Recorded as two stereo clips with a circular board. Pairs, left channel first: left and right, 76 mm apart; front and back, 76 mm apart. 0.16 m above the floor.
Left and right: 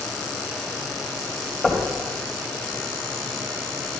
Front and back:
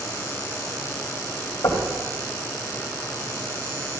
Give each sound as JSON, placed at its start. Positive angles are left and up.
{"t": 1.6, "sound": "knocking", "azimuth_deg": 10, "distance_m": 3.0}